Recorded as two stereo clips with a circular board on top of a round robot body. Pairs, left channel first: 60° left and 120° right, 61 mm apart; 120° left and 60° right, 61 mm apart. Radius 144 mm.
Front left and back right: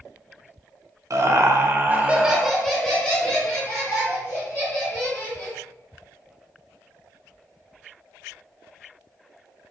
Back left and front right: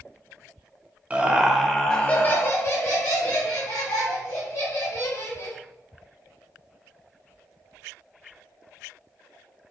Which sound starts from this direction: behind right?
Laughter, at 1.1 s.